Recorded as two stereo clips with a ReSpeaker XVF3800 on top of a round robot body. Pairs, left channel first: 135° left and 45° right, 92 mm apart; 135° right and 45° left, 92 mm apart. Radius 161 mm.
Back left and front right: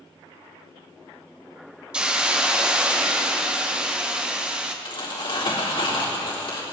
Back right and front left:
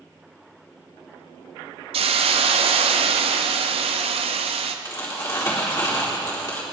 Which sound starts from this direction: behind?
Crumpling, at 4.8 s.